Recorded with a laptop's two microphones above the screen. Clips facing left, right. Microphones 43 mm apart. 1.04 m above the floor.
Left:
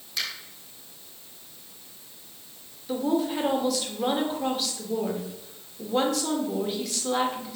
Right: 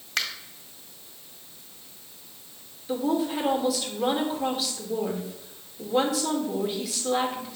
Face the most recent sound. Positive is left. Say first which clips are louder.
# even
turn(degrees=0)  # may be behind; listen again after turning